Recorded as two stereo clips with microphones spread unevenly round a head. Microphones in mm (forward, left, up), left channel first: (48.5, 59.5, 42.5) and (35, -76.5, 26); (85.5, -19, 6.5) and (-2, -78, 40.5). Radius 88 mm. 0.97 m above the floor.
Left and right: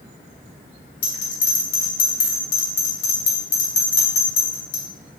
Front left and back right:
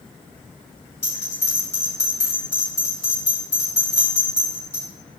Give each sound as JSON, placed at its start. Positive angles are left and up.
{"t": 1.0, "sound": "a bell", "azimuth_deg": 110, "distance_m": 2.5}